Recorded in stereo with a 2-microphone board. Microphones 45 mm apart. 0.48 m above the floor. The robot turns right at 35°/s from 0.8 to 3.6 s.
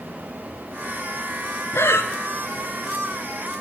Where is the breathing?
85° left, 0.7 m; by 2.1 s 80° left, 0.7 m.